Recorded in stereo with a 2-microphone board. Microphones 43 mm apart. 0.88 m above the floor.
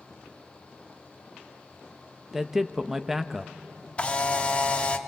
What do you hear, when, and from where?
2.3 s a man speaking: 10° right (ahead or behind), 0.8 m
4.0 s a camera shutter: 30° left (ahead or behind), 1.1 m